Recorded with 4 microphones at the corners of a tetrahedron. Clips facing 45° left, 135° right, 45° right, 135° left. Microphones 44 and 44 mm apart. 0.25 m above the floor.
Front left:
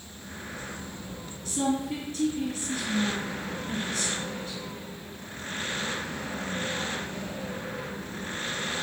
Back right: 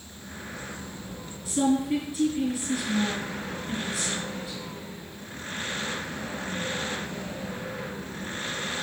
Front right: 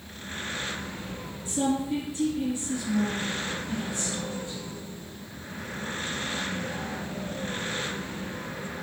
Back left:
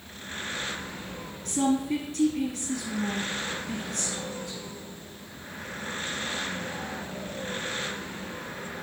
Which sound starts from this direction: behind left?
A woman speaking, at 1.4 s.